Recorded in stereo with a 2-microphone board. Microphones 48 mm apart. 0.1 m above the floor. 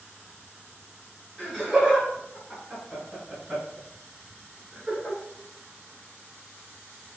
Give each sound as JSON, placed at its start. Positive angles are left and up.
{"t": 1.4, "sound": "laughter", "side_deg": 5, "distance_m": 1.9}